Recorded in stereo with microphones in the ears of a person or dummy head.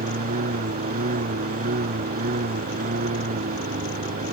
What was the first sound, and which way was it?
A lawn mower, 50° right (ahead or behind).